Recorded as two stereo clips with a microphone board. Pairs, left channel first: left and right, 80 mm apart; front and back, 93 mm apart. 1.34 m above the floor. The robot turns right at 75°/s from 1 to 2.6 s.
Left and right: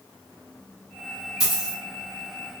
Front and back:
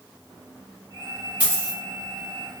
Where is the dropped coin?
115° left, 1.7 m; by 1.8 s 145° left, 1.7 m.